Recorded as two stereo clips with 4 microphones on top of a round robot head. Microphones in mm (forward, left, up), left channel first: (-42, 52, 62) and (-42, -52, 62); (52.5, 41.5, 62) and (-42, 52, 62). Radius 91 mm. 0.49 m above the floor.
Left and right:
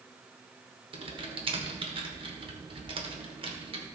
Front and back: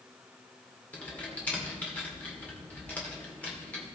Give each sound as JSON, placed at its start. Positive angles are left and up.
{"t": 0.9, "sound": "typing on a keyboard", "azimuth_deg": -80, "distance_m": 2.0}